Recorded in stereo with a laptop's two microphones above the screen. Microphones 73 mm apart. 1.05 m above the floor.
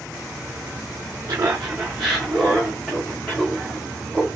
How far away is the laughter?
About 0.6 m.